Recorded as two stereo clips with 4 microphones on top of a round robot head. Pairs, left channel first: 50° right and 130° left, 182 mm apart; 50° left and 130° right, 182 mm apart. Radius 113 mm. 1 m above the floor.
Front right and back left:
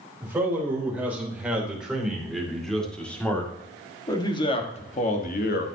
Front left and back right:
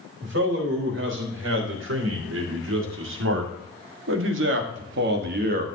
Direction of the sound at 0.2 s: 150° right.